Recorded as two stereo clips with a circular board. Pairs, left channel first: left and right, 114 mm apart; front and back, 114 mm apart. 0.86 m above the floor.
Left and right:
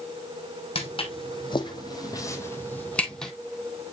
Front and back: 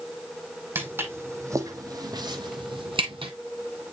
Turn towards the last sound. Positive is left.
turn(degrees=175)